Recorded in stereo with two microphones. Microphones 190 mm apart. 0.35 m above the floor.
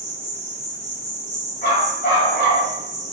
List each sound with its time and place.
0.0 s an insect: 35° right (ahead or behind), 1.6 m
1.6 s a dog barking: 60° left (ahead or behind), 1.3 m